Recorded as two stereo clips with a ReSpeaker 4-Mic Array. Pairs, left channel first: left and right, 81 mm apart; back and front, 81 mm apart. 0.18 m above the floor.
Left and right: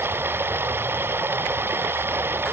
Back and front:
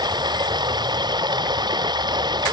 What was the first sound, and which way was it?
Running water, 30° right.